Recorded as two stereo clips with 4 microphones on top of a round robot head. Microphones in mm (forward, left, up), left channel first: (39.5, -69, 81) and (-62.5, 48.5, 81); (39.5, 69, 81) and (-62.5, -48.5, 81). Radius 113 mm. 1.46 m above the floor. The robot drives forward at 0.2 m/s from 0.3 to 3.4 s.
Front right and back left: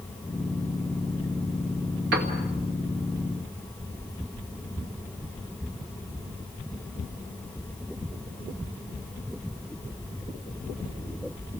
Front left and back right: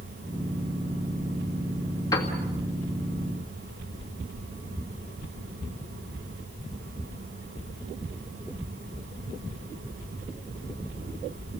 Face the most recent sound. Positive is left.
turn(degrees=125)